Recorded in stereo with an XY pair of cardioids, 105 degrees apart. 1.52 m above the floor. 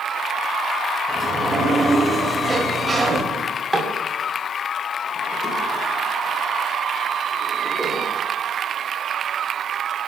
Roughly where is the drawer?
Ahead.